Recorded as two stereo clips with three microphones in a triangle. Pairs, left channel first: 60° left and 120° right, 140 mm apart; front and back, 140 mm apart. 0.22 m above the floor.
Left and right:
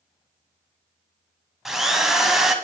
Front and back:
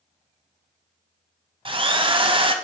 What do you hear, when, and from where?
1.6 s a drill: 155° left, 0.7 m